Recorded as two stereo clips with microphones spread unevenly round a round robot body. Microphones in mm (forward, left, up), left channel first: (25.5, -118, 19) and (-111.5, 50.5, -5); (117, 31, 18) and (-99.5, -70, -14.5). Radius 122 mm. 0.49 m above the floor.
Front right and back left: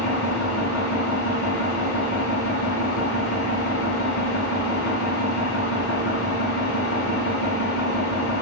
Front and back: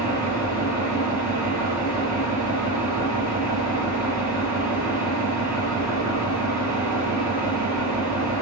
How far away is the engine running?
About 2 m.